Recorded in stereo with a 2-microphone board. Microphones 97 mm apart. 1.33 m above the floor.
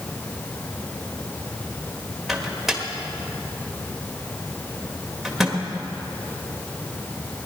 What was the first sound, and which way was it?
A microwave, centre (ahead or behind).